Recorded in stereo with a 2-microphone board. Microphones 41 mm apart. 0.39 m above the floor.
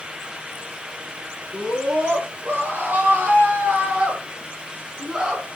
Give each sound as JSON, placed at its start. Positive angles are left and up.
{"t": 1.5, "sound": "a scream", "side_deg": -55, "distance_m": 7.0}